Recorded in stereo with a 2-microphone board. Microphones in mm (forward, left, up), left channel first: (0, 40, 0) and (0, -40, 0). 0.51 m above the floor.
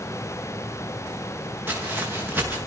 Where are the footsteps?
25° right (ahead or behind), 5 m.